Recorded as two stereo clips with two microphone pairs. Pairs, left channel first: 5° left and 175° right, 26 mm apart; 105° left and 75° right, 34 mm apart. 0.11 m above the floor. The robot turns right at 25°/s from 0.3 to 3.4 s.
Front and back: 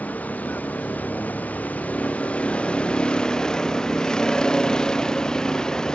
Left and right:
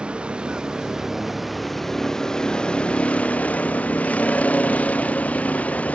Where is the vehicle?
15° right; by 6.0 s 65° left.